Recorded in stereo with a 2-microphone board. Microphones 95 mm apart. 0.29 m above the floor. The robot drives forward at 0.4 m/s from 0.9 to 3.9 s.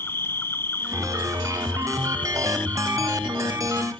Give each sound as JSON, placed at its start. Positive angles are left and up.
{"t": 0.0, "sound": "an insect", "side_deg": 25}